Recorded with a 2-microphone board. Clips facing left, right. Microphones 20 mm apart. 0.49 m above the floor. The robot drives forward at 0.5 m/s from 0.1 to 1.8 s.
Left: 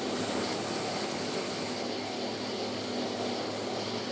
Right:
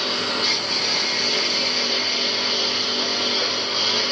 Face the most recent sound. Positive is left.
turn(degrees=-75)  # may be behind; listen again after turning